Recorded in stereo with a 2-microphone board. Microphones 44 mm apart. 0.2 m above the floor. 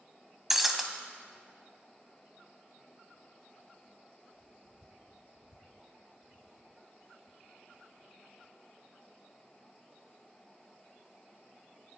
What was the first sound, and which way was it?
Breaking glass, 5° right (ahead or behind).